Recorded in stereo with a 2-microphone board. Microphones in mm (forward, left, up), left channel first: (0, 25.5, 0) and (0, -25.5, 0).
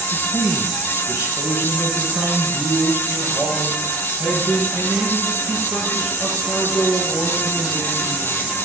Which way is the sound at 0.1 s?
60° left (ahead or behind).